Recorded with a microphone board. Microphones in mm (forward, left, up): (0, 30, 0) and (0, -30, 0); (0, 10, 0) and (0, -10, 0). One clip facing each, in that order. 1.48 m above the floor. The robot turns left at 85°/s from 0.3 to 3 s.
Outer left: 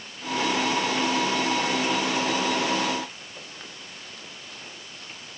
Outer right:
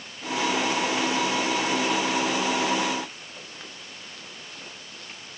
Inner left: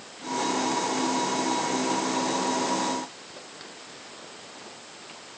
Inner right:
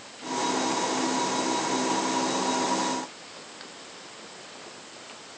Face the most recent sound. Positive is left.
No sound to turn to.